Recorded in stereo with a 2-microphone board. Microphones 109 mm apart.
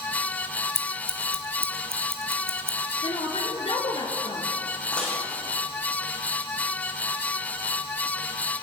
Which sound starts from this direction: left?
A woman speaking, at 3.0 s.